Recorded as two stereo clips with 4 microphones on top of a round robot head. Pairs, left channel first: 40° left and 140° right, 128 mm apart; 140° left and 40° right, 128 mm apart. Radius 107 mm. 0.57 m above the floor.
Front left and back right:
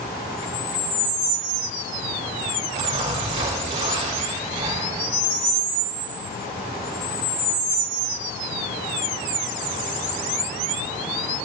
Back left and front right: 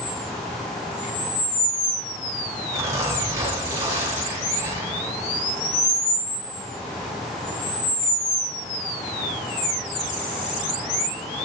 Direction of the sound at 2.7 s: 105° right.